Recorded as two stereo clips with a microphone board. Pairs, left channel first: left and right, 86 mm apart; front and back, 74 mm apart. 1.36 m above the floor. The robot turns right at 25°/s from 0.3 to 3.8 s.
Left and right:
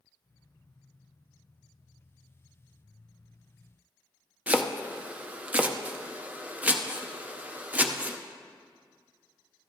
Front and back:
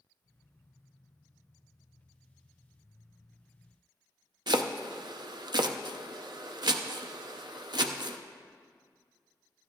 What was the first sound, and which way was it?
Chopping, 160° right.